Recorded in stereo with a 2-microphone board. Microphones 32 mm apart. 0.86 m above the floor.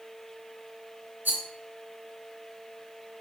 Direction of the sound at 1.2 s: 75° right (ahead or behind).